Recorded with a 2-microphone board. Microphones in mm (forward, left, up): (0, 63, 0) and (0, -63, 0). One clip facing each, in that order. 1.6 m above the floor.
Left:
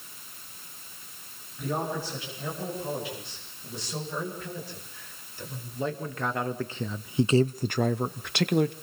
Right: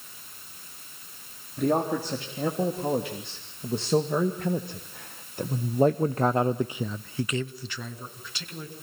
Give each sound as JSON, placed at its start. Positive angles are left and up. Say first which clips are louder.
{"t": 1.6, "sound": "a man speaking", "louder": "right 6 dB", "side_deg": -70, "distance_m": 3.5}